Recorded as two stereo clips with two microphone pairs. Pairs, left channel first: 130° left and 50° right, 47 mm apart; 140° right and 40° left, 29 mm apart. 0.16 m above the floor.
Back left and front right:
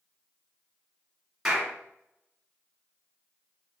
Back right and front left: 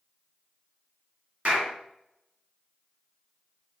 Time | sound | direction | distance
1.4 | a clap | 30° left | 1.5 m